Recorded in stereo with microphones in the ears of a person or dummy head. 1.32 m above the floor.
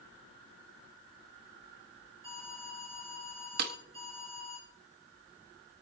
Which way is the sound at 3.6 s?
55° right (ahead or behind).